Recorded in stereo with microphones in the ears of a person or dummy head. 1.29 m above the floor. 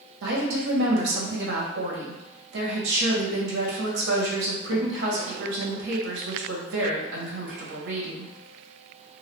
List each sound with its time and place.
0.2 s a woman speaking: 75° right (ahead or behind), 0.8 m